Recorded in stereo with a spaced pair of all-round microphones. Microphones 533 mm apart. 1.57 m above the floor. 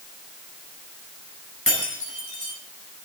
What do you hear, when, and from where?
1.7 s breaking glass: 25° left (ahead or behind), 9.5 m